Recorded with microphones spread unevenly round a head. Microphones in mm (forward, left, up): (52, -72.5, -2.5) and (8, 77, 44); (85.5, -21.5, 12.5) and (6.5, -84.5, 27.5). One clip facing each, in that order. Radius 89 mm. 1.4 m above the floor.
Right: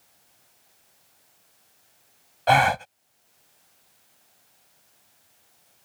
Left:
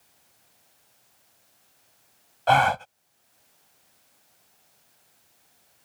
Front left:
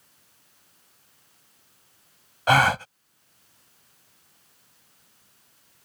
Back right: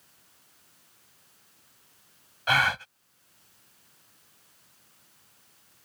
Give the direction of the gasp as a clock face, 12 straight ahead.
11 o'clock.